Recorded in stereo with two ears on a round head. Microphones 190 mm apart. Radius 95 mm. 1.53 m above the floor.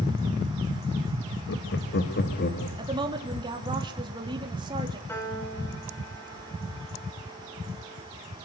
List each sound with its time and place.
1.5 s laughter: 55° left (ahead or behind), 1.9 m; by 2.7 s 45° left (ahead or behind), 2.5 m
2.8 s a woman speaking: 20° right (ahead or behind), 3.5 m
5.1 s a piano: 10° left (ahead or behind), 7.5 m